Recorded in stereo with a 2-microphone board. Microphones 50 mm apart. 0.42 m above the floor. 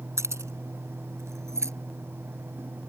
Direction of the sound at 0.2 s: 80° right.